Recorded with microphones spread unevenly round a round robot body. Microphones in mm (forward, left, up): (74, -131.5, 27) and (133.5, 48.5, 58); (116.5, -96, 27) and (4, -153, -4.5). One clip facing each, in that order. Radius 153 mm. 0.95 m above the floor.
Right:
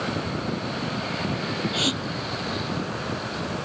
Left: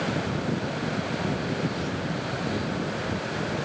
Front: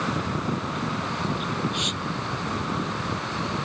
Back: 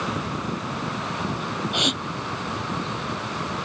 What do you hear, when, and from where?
1.7 s a gasp: 135° right